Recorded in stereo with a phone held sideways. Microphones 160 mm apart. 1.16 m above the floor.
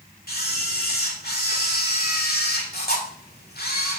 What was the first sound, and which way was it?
A camera shutter, 75° left (ahead or behind).